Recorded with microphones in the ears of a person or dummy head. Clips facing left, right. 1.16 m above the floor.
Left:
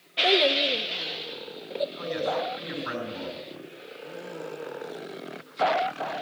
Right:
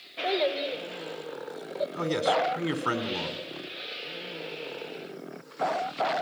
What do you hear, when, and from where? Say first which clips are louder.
0.2 s a child speaking: left 3 dB; 40° left (ahead or behind), 1.2 m
1.9 s a man speaking: right 7 dB; 65° right (ahead or behind), 4 m